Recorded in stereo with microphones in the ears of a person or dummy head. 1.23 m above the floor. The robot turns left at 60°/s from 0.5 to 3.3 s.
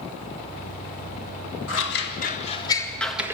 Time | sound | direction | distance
1.7 | scissors | 75° left (ahead or behind) | 1.9 m